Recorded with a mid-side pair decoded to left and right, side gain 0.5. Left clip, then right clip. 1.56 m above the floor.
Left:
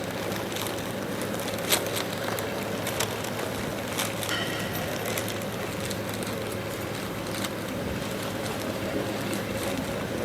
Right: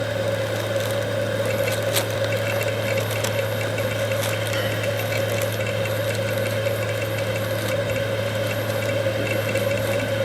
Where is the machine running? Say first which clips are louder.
Right 8 dB; 70° right.